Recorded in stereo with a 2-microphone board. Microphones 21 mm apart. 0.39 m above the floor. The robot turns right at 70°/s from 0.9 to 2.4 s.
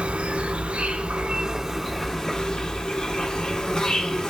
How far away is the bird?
I don't hear a bird.